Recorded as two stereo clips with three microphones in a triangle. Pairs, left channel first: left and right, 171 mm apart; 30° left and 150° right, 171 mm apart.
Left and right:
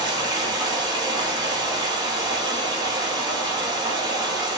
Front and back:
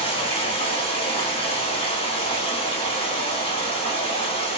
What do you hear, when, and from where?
0.0 s running water: 25° right, 1.0 m